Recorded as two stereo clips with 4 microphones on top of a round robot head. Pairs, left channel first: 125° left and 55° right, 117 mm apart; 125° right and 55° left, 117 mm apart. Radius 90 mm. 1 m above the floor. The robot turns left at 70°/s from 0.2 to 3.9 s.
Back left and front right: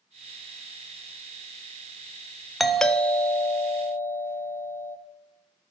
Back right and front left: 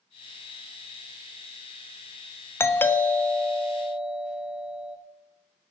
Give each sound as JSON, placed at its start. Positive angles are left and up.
{"t": 2.6, "sound": "a doorbell", "azimuth_deg": -140, "distance_m": 0.5}